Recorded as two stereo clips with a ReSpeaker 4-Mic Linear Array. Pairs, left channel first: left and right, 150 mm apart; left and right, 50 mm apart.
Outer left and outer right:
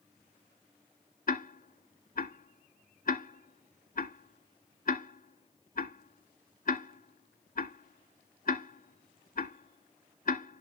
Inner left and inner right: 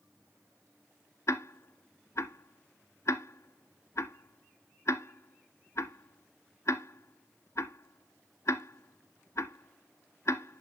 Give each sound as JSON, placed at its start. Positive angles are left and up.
{"t": 1.3, "sound": "ticking", "side_deg": 65, "distance_m": 0.9}